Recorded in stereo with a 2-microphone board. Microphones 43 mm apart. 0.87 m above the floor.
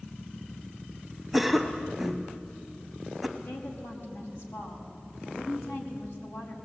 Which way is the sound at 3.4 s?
85° left.